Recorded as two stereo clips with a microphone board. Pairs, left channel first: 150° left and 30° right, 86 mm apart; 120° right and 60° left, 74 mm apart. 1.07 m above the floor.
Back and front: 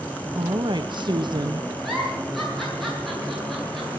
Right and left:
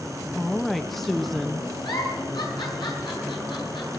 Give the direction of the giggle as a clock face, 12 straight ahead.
4 o'clock.